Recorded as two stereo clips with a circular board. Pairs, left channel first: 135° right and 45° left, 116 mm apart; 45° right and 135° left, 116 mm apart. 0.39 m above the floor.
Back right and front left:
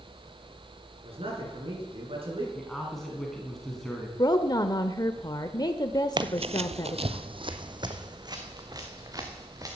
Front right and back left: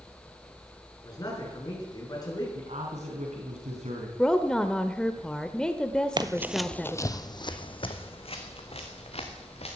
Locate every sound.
1.0 s a man speaking: 10° left, 6.5 m
2.5 s a man speaking: 140° left, 3.5 m
4.2 s a woman speaking: 125° right, 0.9 m
6.2 s running footsteps: 90° left, 0.7 m; by 9.8 s 15° right, 3.5 m